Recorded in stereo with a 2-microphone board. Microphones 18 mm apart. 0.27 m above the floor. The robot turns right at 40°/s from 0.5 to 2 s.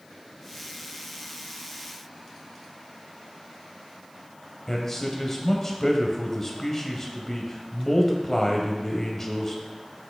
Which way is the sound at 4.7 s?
20° left (ahead or behind).